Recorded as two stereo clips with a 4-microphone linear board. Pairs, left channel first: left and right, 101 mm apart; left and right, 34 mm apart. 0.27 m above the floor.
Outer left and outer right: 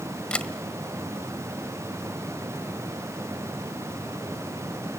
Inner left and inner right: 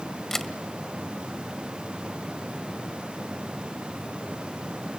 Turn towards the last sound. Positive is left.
turn(degrees=10)  # may be behind; listen again after turning